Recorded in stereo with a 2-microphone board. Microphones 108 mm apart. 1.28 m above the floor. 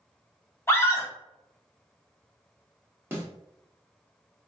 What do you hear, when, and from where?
0.7 s a scream: 25° left (ahead or behind), 1.1 m
3.1 s a snare drum: 20° right (ahead or behind), 1.3 m